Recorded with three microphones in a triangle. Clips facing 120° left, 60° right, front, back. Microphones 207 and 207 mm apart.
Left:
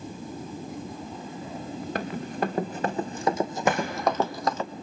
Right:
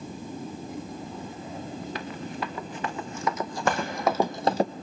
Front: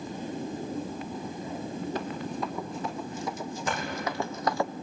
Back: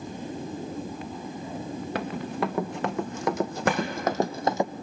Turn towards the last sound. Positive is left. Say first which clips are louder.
# left 1 dB, back 7 dB
turn(degrees=-155)